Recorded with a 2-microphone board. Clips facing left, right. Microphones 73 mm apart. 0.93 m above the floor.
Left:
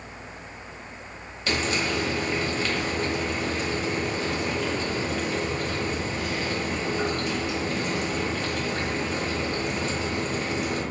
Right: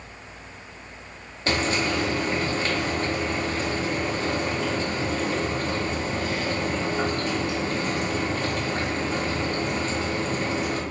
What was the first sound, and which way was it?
Frying, 45° right (ahead or behind).